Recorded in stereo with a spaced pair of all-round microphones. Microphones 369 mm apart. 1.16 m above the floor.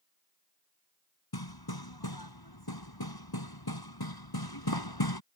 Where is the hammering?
85° left.